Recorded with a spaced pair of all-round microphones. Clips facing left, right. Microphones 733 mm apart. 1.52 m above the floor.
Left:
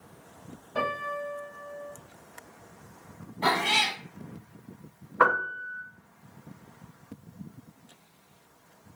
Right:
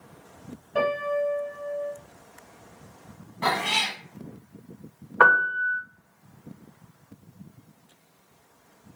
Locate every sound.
0.8 s a piano: 25° right (ahead or behind), 1.7 m
3.4 s a cat meowing: 40° right (ahead or behind), 1.0 m
5.2 s a piano: 25° right (ahead or behind), 0.7 m